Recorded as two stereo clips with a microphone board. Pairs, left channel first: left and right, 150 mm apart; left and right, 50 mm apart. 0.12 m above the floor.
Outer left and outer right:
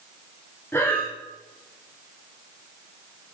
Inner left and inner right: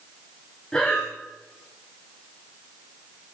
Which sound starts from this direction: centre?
Breathing, at 0.7 s.